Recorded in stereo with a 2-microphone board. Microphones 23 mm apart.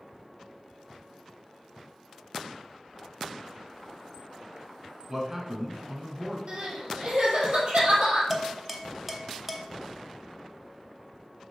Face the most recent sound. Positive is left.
turn(degrees=-10)  # may be behind; listen again after turning